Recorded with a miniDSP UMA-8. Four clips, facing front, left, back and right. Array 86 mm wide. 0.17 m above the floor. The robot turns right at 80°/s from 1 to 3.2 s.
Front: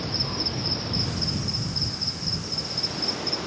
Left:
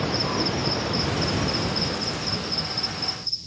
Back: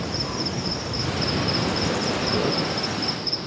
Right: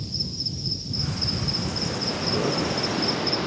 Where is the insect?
100° left; by 3.5 s 80° right.